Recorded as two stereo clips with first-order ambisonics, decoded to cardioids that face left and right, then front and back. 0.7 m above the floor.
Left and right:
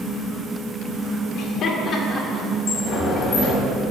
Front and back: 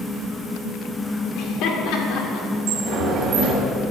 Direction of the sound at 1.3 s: 40° left.